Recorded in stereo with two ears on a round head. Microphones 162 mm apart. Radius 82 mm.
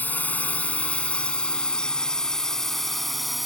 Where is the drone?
10° left (ahead or behind); by 3.5 s centre (ahead or behind).